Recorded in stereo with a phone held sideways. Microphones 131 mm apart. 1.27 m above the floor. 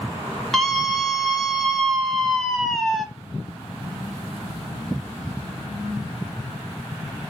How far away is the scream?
About 1.4 m.